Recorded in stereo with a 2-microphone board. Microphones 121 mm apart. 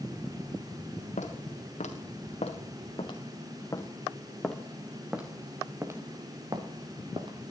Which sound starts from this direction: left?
Footsteps, at 1.2 s.